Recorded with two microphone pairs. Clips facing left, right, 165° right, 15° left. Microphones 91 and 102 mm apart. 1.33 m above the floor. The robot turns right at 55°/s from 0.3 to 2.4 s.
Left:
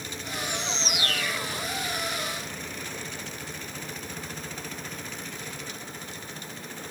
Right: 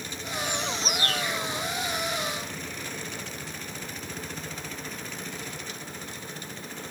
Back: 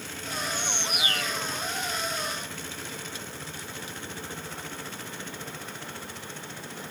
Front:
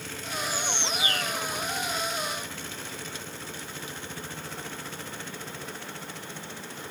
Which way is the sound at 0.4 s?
75° right.